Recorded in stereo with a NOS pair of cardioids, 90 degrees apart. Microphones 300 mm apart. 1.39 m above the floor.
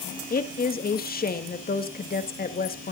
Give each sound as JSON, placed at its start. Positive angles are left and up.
{"t": 0.3, "sound": "a woman speaking", "azimuth_deg": 30, "distance_m": 2.0}